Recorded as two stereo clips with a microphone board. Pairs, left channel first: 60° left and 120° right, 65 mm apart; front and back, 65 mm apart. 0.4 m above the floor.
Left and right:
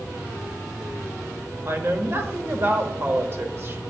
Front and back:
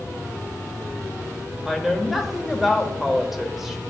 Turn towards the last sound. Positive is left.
turn(degrees=-95)